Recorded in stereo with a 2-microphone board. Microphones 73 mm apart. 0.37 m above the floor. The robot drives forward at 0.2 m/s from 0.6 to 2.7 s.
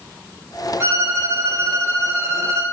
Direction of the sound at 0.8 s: 35° right (ahead or behind).